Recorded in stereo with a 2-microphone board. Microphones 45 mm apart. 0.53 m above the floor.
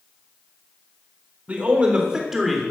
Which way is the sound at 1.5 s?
30° right (ahead or behind).